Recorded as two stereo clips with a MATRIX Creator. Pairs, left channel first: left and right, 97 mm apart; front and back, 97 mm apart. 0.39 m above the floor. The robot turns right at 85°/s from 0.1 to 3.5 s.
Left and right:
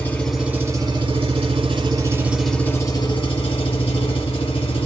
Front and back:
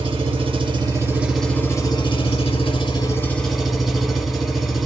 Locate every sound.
0.0 s an engine running: 160° left, 1.4 m; by 4.8 s 90° left, 1.4 m